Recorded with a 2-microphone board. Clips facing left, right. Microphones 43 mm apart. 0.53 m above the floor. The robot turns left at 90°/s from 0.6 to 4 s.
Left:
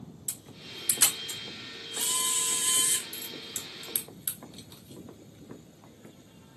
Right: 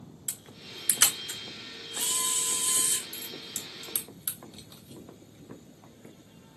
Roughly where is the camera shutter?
Right.